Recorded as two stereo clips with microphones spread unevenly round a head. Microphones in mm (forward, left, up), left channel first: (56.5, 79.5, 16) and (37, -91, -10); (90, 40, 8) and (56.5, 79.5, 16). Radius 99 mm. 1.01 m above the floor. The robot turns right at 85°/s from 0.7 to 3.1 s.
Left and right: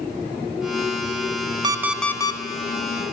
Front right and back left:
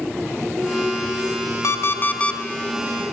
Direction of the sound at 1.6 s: 30° right.